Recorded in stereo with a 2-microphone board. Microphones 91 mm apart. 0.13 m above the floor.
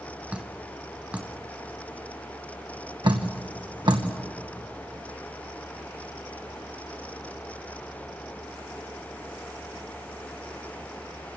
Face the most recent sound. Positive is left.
turn(degrees=-55)  # may be behind; listen again after turning